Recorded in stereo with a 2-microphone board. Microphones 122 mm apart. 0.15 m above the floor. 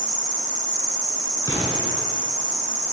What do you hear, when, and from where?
0.0 s an insect: 85° right, 0.8 m
1.4 s an explosion: 30° left (ahead or behind), 1.5 m